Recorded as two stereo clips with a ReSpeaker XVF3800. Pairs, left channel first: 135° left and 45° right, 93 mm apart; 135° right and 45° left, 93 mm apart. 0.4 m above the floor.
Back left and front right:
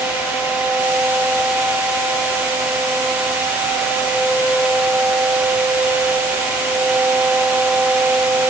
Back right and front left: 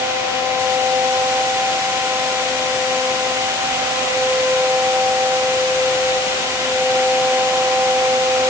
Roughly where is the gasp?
I don't hear a gasp.